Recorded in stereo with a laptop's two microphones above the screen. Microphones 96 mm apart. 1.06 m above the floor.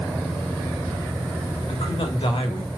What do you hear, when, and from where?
1.7 s a man speaking: 75° left (ahead or behind), 2.5 m